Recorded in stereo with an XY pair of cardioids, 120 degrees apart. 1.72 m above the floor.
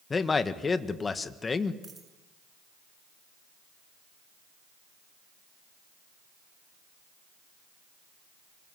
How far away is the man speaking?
About 1.8 m.